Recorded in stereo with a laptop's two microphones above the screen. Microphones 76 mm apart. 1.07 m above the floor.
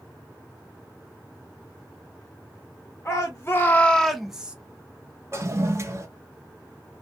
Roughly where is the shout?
Left.